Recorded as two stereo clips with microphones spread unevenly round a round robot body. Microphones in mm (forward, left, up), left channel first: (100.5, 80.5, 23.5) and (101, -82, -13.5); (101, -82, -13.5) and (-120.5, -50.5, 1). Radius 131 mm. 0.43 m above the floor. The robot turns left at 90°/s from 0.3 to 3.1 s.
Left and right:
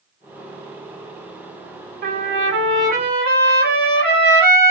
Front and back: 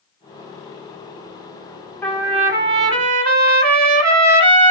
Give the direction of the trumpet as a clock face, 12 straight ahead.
3 o'clock.